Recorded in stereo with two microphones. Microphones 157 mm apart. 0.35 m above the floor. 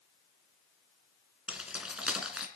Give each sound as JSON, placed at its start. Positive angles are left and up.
{"t": 1.5, "sound": "keys jangling", "side_deg": -5, "distance_m": 2.5}